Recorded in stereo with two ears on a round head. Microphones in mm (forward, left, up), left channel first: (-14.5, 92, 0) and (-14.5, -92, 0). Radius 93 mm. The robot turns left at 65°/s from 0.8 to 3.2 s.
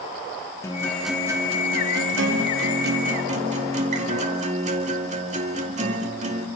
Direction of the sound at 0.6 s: 15° left.